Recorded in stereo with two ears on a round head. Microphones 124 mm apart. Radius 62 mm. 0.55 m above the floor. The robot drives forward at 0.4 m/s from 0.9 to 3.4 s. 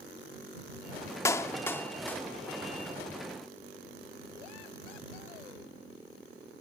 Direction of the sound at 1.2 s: 20° left (ahead or behind).